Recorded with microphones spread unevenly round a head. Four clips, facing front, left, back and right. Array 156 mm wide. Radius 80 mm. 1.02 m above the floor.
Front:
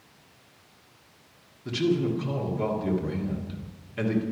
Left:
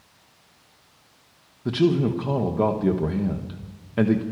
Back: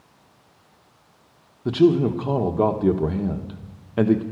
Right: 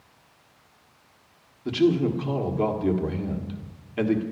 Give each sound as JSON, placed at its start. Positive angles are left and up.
{"t": 1.6, "sound": "a man speaking", "azimuth_deg": 155, "distance_m": 1.3}